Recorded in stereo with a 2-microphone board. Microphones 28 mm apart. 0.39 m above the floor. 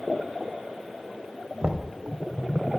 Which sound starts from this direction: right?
Knocking, at 1.6 s.